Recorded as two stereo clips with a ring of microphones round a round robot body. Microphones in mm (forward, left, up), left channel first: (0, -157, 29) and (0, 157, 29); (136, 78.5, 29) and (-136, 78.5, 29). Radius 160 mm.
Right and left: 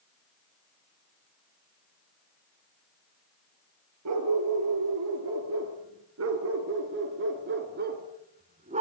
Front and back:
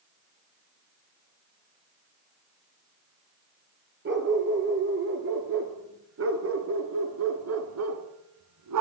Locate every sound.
4.0 s a dog barking: 130° left, 4 m; by 8.8 s 160° left, 2 m